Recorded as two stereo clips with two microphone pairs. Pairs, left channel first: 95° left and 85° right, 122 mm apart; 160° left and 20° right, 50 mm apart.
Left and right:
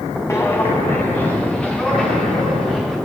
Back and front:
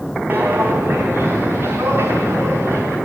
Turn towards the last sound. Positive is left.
turn(degrees=5)